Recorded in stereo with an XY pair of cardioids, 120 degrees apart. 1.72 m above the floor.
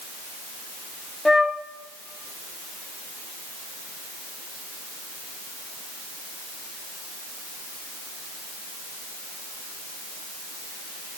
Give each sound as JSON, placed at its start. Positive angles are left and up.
{"t": 1.2, "sound": "a flute", "azimuth_deg": 10, "distance_m": 0.7}